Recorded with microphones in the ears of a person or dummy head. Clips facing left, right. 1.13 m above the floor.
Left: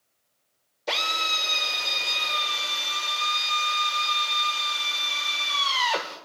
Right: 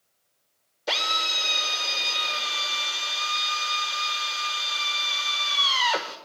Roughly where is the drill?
Centre.